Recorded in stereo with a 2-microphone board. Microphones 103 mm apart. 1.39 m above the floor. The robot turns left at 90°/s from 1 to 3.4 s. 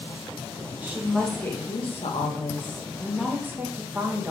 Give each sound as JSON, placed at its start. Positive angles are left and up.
{"t": 0.8, "sound": "a woman speaking", "azimuth_deg": -160, "distance_m": 1.6}